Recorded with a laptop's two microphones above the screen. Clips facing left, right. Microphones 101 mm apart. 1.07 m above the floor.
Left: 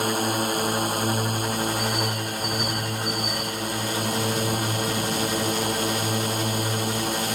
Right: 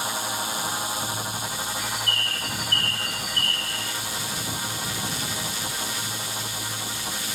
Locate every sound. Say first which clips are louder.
0.0 s a drone: left 6 dB; 55° left (ahead or behind)
1.8 s a bird: left 5 dB; 10° left (ahead or behind)